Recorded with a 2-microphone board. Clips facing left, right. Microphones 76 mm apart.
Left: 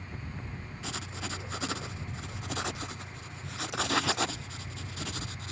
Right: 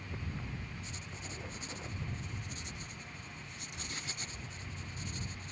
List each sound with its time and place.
0.8 s writing: 85° left